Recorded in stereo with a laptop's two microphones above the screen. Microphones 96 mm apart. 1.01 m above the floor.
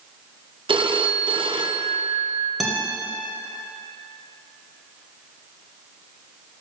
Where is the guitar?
Centre (ahead or behind), 1.1 m.